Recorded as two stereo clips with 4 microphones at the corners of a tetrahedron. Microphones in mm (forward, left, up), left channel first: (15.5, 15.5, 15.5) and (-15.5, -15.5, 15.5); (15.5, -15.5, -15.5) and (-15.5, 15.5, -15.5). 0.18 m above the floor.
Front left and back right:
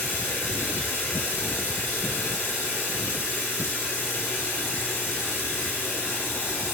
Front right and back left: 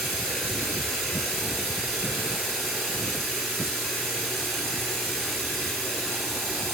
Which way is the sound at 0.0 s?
35° left.